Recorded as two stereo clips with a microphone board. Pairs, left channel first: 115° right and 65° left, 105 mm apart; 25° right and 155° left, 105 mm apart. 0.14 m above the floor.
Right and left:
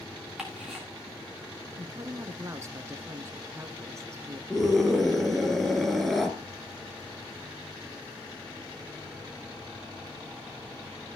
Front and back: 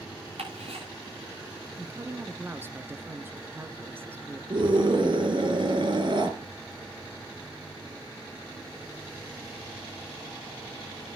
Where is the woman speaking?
105° left, 1.3 m.